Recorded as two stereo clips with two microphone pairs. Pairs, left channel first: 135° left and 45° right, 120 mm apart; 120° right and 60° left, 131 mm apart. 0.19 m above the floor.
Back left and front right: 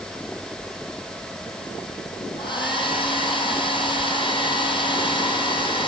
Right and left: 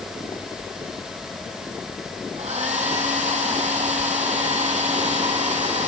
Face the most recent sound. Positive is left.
turn(degrees=90)